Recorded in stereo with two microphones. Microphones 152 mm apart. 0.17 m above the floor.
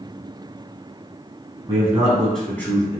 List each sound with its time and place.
1.7 s a man speaking: 20° right (ahead or behind), 1.2 m; by 3.0 s 20° left (ahead or behind), 1.4 m